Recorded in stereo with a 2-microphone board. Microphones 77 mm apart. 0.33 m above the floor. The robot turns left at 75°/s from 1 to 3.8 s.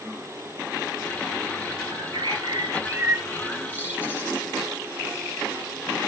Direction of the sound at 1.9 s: 65° right (ahead or behind).